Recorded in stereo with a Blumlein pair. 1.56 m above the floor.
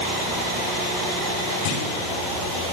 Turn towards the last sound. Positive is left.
turn(degrees=50)